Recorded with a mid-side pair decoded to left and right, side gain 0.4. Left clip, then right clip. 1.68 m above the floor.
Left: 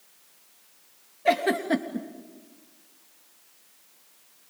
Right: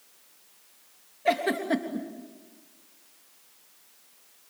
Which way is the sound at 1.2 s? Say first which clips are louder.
Left 2 dB; 15° left.